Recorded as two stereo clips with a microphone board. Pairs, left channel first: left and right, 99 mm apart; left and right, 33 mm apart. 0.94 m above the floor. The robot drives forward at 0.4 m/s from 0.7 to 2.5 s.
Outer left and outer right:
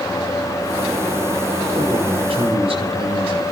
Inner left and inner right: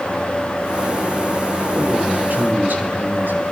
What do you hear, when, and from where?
1.8 s a man speaking: 75° right (ahead or behind), 5.5 m